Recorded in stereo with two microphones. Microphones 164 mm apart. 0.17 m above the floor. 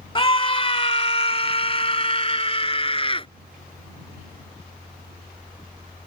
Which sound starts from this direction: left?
A scream, at 0.1 s.